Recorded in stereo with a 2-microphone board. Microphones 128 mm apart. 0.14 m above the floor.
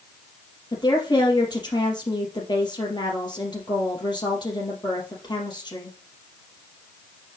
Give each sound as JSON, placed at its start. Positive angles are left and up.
{"t": 0.7, "sound": "a woman speaking", "side_deg": 35, "distance_m": 3.5}